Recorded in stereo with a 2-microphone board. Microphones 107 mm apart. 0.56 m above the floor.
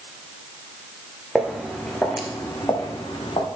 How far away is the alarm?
No alarm in this recording.